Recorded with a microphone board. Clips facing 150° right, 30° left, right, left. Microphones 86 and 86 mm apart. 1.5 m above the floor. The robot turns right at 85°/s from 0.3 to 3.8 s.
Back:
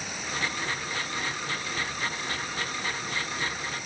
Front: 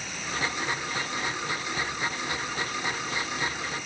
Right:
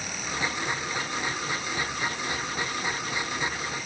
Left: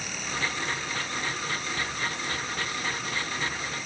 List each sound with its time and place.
Only background noise.